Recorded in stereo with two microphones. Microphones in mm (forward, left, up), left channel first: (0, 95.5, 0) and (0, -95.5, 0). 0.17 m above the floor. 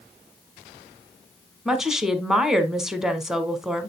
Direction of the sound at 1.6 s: Centre (ahead or behind).